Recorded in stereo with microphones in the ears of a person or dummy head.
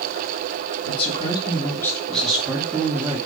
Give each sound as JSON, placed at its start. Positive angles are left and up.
{"t": 0.8, "sound": "a man speaking", "side_deg": 35, "distance_m": 3.0}